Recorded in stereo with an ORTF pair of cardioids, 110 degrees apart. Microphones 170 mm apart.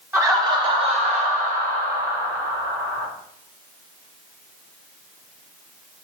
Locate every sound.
0.1 s laughter: 15° right, 1.6 m; by 3.1 s 70° right, 2.5 m